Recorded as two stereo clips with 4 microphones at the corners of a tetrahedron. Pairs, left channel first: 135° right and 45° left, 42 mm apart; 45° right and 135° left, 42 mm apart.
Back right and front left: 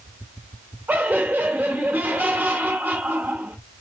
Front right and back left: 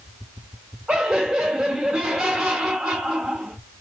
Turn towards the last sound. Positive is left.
turn(degrees=90)